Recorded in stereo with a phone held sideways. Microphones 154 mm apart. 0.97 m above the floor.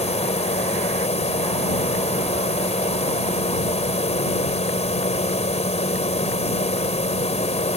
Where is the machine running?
45° left (ahead or behind).